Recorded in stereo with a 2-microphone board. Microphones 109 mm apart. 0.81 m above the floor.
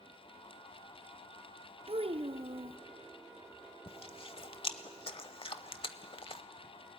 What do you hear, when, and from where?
1.9 s a child speaking: 55° right (ahead or behind), 0.5 m
3.9 s chewing: 55° left (ahead or behind), 0.8 m